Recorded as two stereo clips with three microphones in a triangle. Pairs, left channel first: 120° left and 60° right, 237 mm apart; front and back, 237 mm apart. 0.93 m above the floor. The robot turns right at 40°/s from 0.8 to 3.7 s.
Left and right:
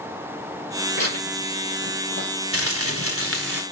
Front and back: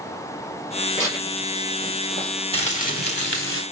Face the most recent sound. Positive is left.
turn(degrees=-20)